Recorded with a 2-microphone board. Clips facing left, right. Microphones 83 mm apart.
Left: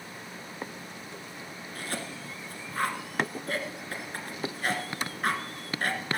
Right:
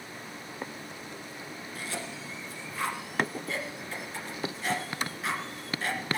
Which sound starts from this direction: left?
A cough, at 1.8 s.